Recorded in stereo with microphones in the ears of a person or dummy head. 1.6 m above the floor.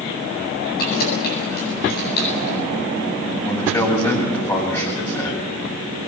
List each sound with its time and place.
0.8 s keys jangling: 50° left (ahead or behind), 8.5 m; by 2.6 s 55° left (ahead or behind), 9 m
3.4 s a man speaking: 15° left (ahead or behind), 7 m